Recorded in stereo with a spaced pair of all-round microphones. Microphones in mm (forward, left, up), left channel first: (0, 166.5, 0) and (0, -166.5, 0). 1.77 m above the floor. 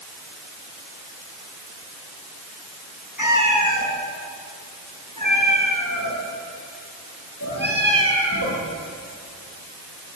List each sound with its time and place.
3.2 s a cat meowing: 65° left (ahead or behind), 6 m; by 8.6 s 45° left (ahead or behind), 8.5 m